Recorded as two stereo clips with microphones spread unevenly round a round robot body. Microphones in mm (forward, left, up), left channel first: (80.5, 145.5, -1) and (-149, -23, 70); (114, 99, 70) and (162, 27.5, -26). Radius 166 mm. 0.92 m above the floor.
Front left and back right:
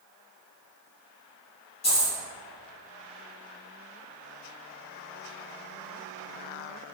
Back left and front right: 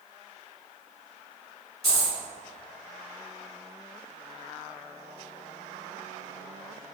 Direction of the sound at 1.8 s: 115° left.